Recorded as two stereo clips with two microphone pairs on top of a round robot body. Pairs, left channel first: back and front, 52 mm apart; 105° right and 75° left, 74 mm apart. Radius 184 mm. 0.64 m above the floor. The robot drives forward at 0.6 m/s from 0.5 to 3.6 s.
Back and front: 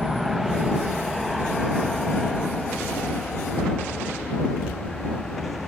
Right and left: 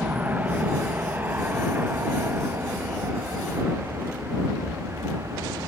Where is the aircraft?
90° left; by 5.7 s 100° left.